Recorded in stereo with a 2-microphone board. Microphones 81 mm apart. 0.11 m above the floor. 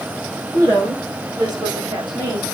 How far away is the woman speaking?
About 5 m.